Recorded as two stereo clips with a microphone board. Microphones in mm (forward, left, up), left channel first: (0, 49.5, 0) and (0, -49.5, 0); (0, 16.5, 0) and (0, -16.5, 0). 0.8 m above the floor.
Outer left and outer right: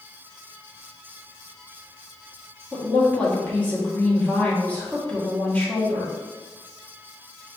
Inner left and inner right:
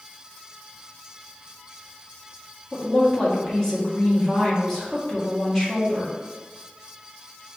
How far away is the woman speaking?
About 1.3 m.